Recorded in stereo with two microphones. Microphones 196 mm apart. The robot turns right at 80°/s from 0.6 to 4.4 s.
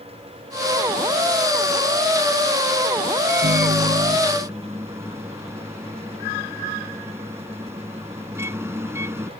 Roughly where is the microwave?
Right.